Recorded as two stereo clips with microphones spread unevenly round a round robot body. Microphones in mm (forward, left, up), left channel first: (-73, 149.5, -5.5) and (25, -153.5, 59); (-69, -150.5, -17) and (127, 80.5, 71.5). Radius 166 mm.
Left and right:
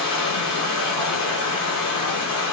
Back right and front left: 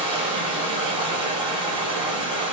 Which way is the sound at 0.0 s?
130° left.